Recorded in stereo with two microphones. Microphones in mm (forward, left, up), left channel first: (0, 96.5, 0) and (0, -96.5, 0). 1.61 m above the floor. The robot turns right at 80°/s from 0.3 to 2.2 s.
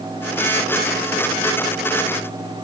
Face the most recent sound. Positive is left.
No sound to turn to.